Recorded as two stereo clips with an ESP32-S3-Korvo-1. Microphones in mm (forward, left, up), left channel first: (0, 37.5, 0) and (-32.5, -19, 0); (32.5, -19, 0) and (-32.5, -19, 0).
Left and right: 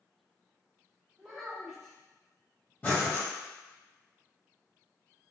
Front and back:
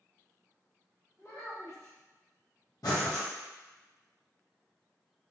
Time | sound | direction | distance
1.2 | a child speaking | 35° right | 1.6 m
2.8 | breathing | 5° right | 1.1 m